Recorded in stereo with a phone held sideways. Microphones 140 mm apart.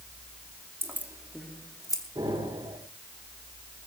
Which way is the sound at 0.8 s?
15° right (ahead or behind).